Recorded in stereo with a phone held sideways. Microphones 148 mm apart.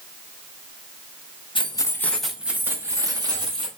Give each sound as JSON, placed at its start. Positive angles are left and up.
{"t": 1.6, "sound": "keys jangling", "side_deg": 35, "distance_m": 0.7}